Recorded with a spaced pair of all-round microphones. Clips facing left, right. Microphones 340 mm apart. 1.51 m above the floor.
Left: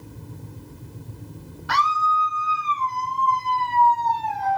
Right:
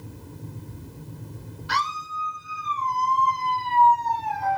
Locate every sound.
1.7 s a scream: 70° left (ahead or behind), 1.4 m; by 4.6 s 40° left (ahead or behind), 1.6 m